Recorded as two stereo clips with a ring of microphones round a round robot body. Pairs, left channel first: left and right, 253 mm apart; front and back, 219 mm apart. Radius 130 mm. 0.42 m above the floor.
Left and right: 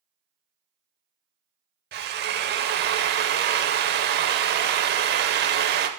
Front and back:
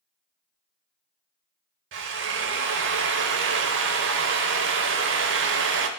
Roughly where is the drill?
Behind right.